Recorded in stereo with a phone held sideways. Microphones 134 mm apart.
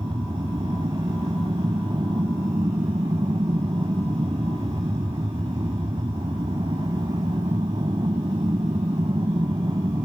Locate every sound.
0.0 s an aircraft: 30° right (ahead or behind)